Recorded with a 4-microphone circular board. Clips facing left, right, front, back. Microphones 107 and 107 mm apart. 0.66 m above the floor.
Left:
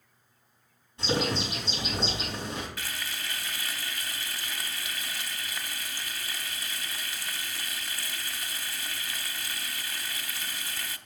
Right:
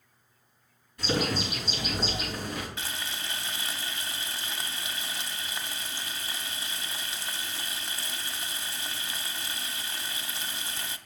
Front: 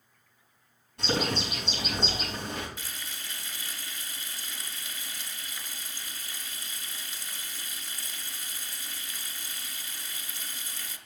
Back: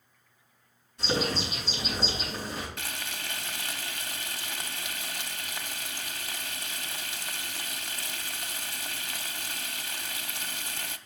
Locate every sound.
1.0 s a bird: 25° left, 5.5 m
2.8 s frying: 155° right, 0.5 m